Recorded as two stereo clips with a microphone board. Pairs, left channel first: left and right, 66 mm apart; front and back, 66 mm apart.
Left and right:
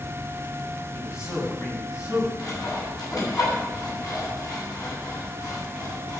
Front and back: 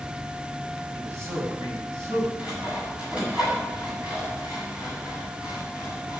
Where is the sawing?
105° left, 8.5 m.